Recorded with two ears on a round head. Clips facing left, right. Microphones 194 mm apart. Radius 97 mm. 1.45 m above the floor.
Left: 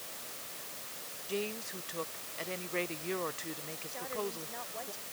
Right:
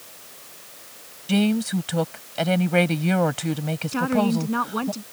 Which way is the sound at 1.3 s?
85° right.